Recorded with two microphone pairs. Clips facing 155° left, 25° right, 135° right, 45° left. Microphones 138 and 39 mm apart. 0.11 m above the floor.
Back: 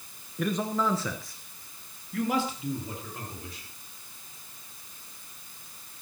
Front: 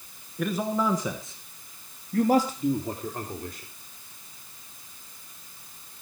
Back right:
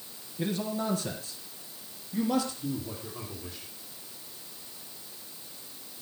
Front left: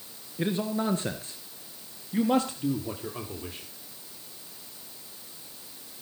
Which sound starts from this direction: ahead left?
A man speaking, at 0.4 s.